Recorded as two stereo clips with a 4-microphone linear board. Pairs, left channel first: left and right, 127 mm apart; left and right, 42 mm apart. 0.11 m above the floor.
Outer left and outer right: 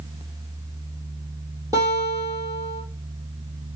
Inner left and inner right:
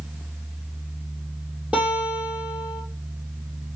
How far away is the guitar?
About 3 m.